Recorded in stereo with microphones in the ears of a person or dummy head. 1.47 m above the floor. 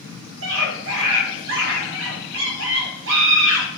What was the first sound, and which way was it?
A scream, 70° right (ahead or behind).